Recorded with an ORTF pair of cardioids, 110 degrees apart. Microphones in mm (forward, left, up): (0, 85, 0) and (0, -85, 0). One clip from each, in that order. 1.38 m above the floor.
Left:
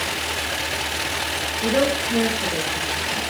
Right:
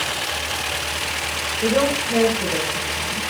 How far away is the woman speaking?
About 5 m.